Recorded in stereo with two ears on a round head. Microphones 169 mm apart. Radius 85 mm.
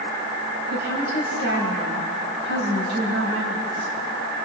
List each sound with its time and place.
0.7 s a woman speaking: 75° left (ahead or behind), 9 m